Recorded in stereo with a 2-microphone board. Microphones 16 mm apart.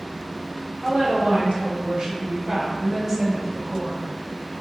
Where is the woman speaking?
75° right (ahead or behind), 1.3 m; by 4.1 s centre (ahead or behind), 1.7 m.